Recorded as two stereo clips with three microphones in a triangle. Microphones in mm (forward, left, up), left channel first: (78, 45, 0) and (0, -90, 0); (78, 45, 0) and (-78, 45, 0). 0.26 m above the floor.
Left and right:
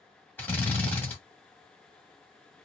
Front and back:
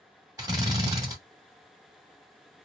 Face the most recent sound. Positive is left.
turn(degrees=130)